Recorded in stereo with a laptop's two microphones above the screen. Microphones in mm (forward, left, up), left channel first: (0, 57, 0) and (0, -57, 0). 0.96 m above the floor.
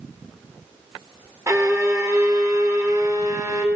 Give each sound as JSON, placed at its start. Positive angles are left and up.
{"t": 1.5, "sound": "a violin", "side_deg": -30, "distance_m": 0.8}